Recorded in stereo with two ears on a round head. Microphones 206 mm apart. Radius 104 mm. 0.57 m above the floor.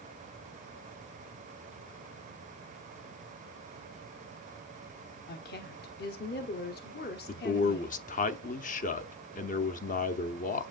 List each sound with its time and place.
5.3 s a woman speaking: 45° left (ahead or behind), 1.0 m
7.3 s a man speaking: 35° left (ahead or behind), 0.8 m